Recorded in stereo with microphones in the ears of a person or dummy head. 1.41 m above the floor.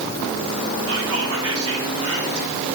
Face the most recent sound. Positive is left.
turn(degrees=-85)